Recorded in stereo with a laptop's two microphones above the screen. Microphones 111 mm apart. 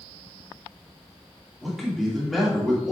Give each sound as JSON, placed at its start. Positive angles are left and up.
{"t": 1.6, "sound": "a man speaking", "side_deg": 0, "distance_m": 2.5}